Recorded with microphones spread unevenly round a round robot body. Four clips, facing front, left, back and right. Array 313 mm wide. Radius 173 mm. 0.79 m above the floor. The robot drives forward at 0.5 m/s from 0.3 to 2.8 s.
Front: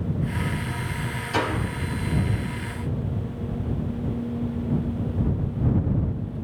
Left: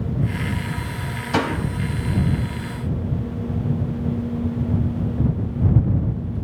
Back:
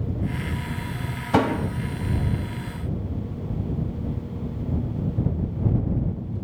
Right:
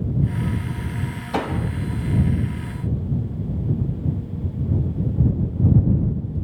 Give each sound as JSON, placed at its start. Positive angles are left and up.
{"t": 1.3, "sound": "a door slam", "azimuth_deg": 165, "distance_m": 3.0}